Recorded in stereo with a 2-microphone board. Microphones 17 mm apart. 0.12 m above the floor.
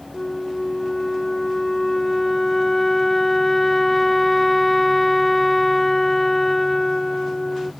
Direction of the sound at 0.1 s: 20° left (ahead or behind).